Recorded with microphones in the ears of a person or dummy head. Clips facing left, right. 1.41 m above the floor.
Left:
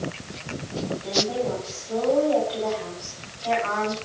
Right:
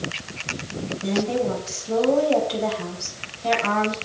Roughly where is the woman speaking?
Right.